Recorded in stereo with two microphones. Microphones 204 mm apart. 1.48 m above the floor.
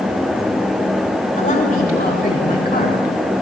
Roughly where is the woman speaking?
Left.